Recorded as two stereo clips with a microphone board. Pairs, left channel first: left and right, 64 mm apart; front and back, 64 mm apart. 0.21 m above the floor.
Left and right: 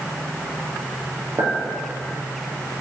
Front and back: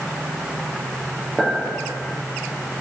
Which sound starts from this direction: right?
A clink, at 1.4 s.